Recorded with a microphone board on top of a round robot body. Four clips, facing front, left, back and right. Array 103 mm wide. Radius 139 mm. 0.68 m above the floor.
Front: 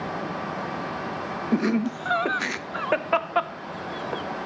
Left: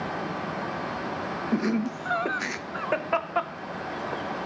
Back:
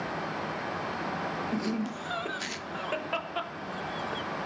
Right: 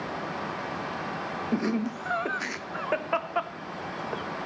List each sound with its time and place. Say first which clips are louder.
1.5 s laughter: left 2 dB, front 13 dB; 10° left, 1.3 m